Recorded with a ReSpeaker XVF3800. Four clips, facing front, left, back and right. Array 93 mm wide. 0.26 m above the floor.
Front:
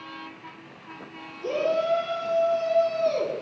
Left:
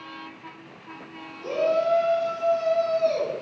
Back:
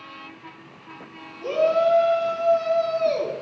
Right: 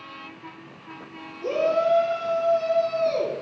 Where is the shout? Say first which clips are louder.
Right 1 dB, back 5 dB; 170° right, 3 m; by 3.4 s 170° left, 3.5 m.